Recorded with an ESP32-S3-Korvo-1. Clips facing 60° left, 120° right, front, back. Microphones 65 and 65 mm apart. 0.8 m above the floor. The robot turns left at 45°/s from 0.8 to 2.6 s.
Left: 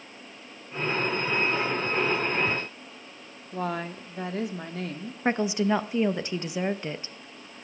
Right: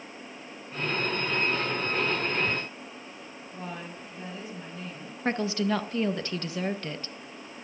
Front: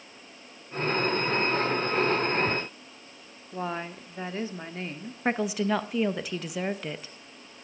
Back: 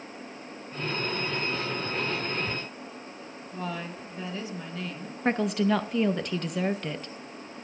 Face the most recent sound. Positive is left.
turn(degrees=70)